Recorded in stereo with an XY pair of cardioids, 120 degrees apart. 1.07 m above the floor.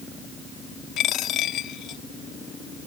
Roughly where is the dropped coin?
Left.